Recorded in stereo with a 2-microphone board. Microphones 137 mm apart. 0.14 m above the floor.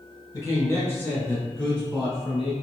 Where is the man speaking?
25° left (ahead or behind), 1.4 m; by 2.5 s centre (ahead or behind), 1.3 m.